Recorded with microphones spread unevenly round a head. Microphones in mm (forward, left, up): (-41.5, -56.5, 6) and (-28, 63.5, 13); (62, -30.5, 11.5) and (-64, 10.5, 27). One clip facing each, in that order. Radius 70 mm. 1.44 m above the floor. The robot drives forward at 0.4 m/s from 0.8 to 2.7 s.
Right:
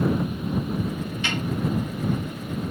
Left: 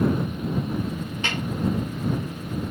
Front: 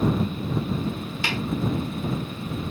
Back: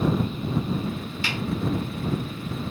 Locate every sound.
1.2 s a snare drum: 20° left, 1.9 m